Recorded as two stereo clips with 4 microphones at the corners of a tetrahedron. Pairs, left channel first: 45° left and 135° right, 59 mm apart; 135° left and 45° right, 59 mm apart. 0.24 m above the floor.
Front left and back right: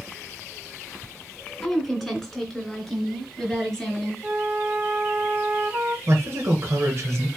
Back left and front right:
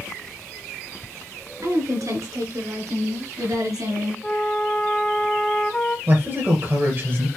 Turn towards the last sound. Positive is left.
turn(degrees=-90)